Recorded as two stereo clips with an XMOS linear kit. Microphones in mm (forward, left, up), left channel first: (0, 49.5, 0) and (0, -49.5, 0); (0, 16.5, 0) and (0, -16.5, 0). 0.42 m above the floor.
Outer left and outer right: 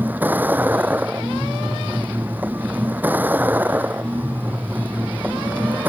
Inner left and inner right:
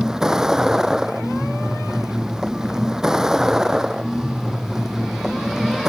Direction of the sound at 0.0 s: 15° right (ahead or behind).